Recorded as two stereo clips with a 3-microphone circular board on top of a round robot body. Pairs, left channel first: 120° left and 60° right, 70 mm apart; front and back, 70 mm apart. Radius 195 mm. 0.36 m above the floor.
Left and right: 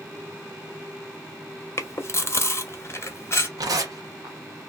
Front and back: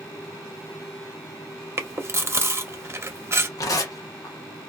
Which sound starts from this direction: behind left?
Chewing, at 1.8 s.